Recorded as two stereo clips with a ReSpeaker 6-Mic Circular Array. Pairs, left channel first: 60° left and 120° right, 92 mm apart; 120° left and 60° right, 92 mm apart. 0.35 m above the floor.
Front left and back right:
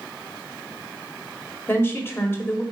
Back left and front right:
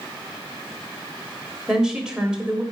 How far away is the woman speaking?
About 1.3 m.